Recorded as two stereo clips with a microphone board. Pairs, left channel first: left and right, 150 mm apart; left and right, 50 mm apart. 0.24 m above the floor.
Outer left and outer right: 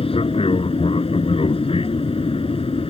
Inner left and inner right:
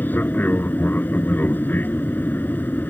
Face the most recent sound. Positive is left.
turn(degrees=35)  # may be behind; listen again after turning